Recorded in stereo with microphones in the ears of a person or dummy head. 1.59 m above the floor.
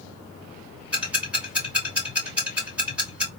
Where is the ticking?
15° right (ahead or behind), 3 m.